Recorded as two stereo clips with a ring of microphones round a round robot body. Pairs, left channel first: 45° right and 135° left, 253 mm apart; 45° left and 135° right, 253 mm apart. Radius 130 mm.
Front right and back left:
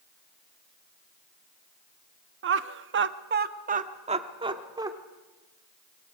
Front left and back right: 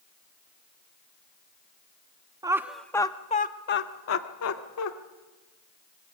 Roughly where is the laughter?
Behind left.